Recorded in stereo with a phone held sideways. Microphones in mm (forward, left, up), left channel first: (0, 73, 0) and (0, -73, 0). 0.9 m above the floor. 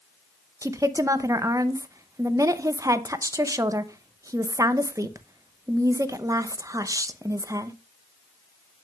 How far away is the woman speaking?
About 0.6 m.